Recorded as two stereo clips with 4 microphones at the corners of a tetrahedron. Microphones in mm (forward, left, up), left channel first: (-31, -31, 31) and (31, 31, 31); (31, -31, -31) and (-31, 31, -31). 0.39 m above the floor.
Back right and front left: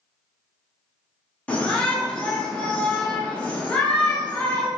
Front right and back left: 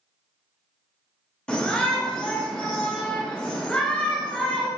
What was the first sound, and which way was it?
A shout, 95° right.